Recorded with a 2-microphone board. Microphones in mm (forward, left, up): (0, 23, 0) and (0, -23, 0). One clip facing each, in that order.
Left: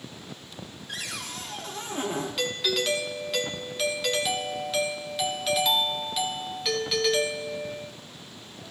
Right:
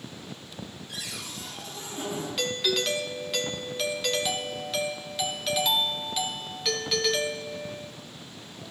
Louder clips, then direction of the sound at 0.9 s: Left 5 dB; 55° left (ahead or behind).